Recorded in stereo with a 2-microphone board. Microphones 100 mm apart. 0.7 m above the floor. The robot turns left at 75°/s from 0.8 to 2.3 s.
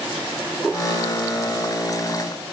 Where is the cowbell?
No cowbell in this recording.